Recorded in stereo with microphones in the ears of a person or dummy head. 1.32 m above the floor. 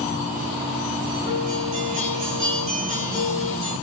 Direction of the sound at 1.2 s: 35° right (ahead or behind).